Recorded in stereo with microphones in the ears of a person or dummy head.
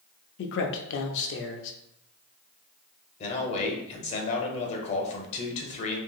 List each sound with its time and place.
0.4 s a man speaking: 75° left (ahead or behind), 0.5 m
3.2 s a man speaking: 40° left (ahead or behind), 0.8 m